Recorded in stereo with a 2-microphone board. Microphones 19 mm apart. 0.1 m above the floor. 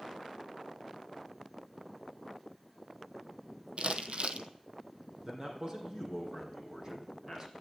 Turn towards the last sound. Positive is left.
turn(degrees=-35)  # may be behind; listen again after turning